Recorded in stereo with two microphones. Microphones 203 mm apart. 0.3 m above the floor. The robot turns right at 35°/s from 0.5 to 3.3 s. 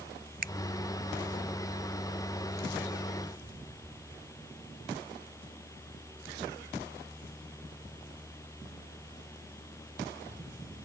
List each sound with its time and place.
0.4 s a finger snap: 50° right (ahead or behind)